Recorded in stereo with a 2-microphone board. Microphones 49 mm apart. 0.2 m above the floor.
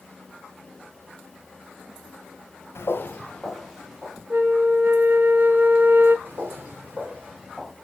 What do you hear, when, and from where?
2.8 s footsteps: 60° left (ahead or behind), 0.9 m; by 4.2 s 10° right (ahead or behind), 2 m
4.3 s a flute: 40° right (ahead or behind), 1.0 m
6.2 s footsteps: 50° right (ahead or behind), 2 m; by 7.7 s 5° right (ahead or behind), 1.1 m